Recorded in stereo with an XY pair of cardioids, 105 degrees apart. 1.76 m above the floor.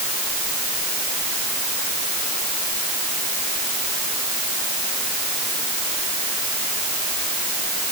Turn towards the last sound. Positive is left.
No sound to turn to.